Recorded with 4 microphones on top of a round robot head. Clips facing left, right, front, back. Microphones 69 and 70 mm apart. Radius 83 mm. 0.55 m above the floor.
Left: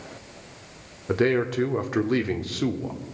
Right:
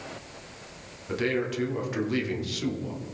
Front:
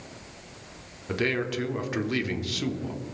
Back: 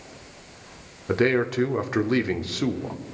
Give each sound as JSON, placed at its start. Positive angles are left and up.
{"t": 1.1, "sound": "a man speaking", "azimuth_deg": 130, "distance_m": 1.3}